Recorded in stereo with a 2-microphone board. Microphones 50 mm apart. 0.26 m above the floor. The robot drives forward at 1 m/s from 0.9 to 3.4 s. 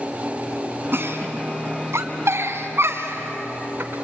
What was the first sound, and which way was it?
A giggle, 50° right (ahead or behind).